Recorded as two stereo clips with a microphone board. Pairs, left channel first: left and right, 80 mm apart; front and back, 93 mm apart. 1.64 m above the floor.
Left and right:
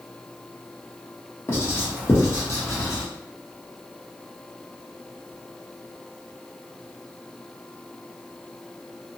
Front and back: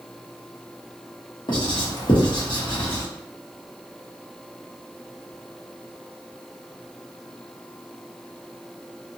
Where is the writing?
35° left, 0.9 m.